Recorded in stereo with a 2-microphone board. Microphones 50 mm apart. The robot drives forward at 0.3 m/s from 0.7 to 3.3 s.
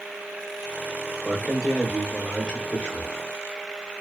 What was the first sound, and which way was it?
A man speaking, 25° left (ahead or behind).